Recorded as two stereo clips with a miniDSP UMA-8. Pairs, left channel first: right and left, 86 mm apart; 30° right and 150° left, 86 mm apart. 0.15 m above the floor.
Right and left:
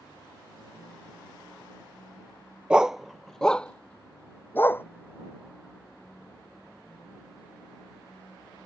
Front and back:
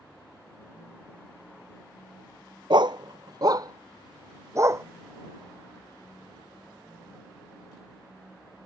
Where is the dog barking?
165° left; by 4.8 s 155° right.